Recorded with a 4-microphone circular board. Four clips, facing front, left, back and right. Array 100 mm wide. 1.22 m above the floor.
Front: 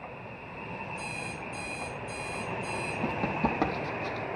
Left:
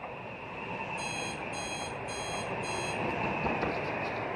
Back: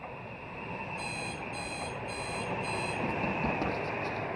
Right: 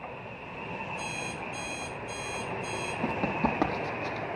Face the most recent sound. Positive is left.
turn(degrees=-50)